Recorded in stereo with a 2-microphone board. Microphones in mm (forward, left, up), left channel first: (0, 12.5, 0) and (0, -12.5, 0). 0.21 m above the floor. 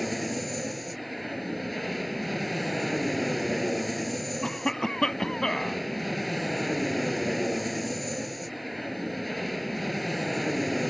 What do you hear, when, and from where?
0.0 s an aircraft: centre (ahead or behind)
4.4 s a cough: 25° left (ahead or behind)